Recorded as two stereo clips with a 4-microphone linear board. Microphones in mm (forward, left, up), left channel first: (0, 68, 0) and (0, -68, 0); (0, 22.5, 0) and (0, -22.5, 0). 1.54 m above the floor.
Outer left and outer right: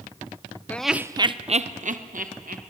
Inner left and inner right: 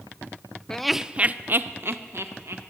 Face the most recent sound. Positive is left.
turn(degrees=-70)  # may be behind; listen again after turning